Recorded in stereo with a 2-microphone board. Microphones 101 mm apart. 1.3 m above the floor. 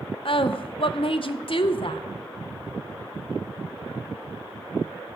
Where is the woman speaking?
60° left (ahead or behind), 0.7 m.